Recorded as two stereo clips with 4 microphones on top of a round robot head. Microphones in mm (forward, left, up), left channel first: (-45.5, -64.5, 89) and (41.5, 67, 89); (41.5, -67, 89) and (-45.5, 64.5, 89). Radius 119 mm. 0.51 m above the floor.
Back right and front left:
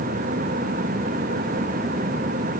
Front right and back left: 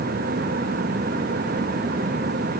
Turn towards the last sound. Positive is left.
No sound to turn to.